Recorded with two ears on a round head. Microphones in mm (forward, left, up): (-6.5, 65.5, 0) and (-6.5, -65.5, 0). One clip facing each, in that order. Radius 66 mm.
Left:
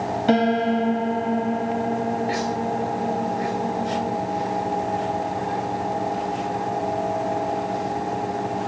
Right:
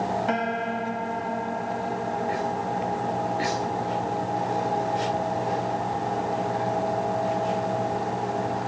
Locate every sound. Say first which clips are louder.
0.3 s a piano: left 8 dB; 40° left (ahead or behind)